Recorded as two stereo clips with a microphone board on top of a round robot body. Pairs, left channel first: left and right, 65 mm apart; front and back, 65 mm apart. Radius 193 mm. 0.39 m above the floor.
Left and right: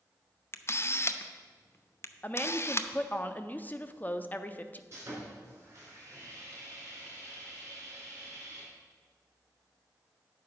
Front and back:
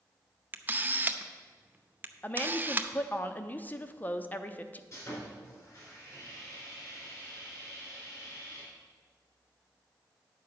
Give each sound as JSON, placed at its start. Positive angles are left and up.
{"t": 0.5, "sound": "a camera shutter", "azimuth_deg": 125, "distance_m": 0.8}
{"t": 2.2, "sound": "a woman speaking", "azimuth_deg": 45, "distance_m": 0.9}
{"t": 4.9, "sound": "sawing", "azimuth_deg": -40, "distance_m": 4.0}